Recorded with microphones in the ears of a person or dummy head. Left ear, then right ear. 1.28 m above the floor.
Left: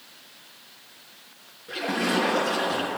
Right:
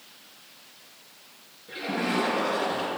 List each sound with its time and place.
1.7 s a splash: 40° left (ahead or behind), 6 m